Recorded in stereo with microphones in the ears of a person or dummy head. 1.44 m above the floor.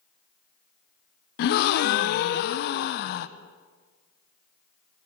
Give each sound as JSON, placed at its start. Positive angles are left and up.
{"t": 1.4, "sound": "a gasp", "side_deg": 55, "distance_m": 0.5}